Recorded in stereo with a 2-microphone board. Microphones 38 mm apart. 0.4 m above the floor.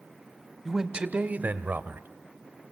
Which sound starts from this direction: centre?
A man speaking, at 0.7 s.